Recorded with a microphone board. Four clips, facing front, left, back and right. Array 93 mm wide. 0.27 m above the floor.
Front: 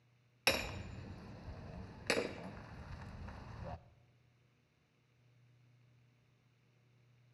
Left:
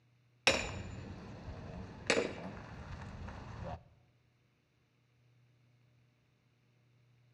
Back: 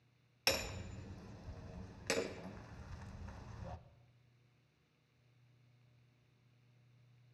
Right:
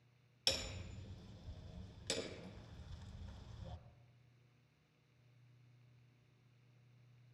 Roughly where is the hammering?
Left.